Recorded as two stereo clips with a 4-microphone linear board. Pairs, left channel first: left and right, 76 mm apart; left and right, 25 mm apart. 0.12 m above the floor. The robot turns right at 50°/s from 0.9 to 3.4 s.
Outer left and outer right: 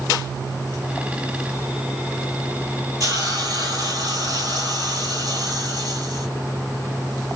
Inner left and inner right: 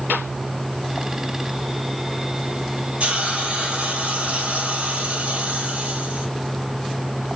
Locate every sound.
3.0 s a hiss: 50° right (ahead or behind), 1.3 m; by 6.3 s 60° right (ahead or behind), 1.3 m